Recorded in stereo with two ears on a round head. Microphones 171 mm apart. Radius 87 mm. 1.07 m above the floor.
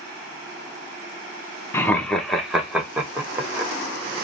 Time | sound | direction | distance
1.7 | laughter | 15° left (ahead or behind) | 0.5 m